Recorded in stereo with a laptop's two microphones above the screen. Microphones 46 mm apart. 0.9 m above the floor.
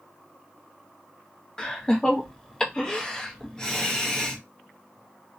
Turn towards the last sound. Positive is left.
turn(degrees=20)  # may be behind; listen again after turning